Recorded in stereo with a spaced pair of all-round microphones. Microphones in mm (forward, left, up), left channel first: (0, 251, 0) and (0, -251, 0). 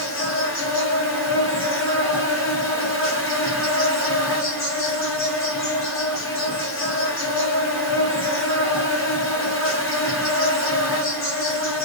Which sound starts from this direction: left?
An insect, at 0.0 s.